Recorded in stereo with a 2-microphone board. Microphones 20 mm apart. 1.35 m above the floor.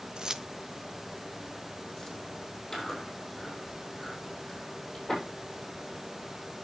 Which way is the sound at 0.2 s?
45° right (ahead or behind).